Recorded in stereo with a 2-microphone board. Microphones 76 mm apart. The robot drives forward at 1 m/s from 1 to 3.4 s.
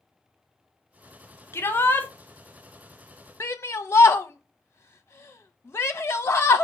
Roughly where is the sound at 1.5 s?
Left.